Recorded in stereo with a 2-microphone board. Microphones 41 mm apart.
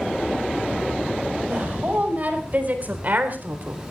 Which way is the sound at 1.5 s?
35° right (ahead or behind).